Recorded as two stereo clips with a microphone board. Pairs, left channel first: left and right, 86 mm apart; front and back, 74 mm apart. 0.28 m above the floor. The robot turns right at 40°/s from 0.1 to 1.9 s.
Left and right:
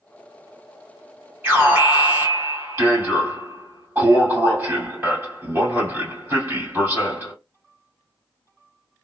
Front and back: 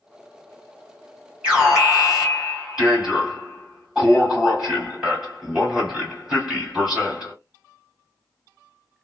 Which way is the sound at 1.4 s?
120° right.